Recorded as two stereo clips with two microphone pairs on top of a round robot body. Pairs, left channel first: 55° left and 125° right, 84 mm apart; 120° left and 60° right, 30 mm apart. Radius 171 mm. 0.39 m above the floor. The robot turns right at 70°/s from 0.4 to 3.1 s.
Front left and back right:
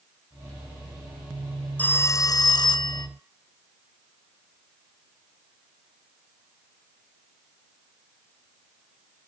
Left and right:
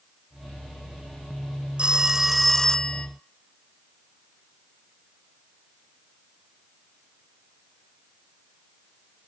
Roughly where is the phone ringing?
Ahead.